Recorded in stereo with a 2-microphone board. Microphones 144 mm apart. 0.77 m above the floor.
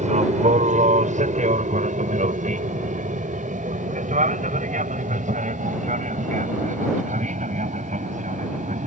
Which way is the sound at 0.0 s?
60° right (ahead or behind).